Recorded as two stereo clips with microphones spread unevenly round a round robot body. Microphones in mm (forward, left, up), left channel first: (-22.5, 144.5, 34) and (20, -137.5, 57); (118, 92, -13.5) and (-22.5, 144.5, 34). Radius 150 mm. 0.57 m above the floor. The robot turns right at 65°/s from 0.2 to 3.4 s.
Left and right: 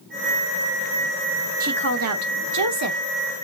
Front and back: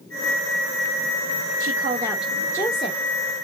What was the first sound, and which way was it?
A woman speaking, 140° right.